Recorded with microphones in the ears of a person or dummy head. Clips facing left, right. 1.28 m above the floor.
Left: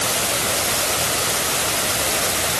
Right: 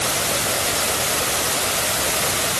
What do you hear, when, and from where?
Only background noise.